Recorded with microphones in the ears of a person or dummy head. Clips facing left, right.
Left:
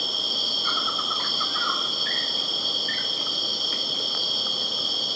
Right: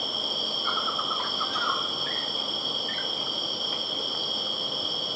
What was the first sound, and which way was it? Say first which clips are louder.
An insect: right 1 dB; 25° left (ahead or behind).